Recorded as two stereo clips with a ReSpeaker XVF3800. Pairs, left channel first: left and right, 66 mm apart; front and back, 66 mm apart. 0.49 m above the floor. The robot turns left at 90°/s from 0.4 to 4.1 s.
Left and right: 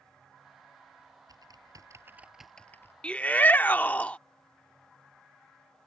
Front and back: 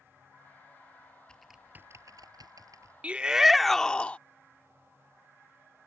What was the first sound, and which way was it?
Typing on a keyboard, 75° right.